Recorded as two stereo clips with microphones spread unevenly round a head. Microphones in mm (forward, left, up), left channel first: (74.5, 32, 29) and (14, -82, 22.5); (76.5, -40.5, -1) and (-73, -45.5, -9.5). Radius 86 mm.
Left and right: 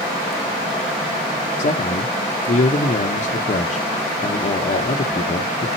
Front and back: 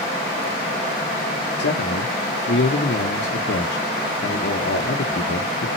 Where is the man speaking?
30° left, 0.9 m.